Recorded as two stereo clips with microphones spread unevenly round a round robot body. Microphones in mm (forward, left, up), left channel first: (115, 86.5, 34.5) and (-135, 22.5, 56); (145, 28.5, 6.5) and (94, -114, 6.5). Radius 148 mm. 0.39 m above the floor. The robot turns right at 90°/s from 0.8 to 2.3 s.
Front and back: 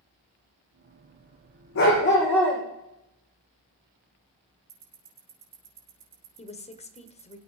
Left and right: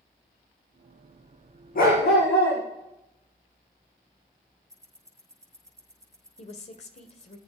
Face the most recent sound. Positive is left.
turn(degrees=65)